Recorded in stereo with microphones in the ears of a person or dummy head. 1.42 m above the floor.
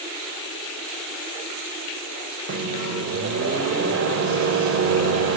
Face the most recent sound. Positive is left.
turn(degrees=-50)  # may be behind; listen again after turning